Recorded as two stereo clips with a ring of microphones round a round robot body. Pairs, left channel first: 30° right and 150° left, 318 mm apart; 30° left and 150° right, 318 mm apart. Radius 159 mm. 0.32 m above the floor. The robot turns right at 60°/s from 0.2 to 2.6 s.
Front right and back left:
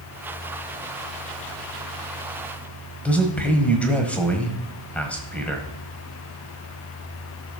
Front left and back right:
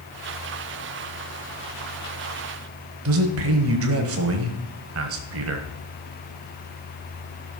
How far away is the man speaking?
About 1.3 m.